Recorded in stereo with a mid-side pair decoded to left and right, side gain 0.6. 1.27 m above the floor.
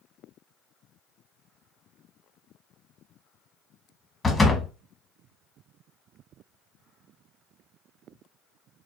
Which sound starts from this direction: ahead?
A door slam, at 4.2 s.